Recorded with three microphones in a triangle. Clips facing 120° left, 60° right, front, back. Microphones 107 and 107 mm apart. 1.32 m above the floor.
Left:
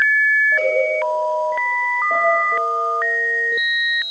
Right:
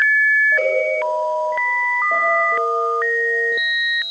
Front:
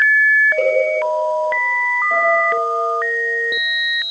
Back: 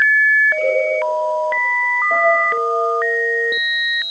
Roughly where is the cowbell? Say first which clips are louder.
Even, front 2 dB; ahead left.